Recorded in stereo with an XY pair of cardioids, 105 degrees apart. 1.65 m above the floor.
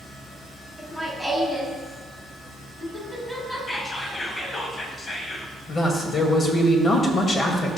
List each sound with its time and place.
0.8 s laughter: 5° left, 2.5 m
3.7 s whispering: 30° left, 1.4 m
5.7 s a man speaking: 40° left, 2 m